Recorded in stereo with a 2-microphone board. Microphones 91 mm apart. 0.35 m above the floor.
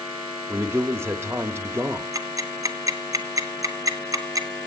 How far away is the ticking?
About 1.2 m.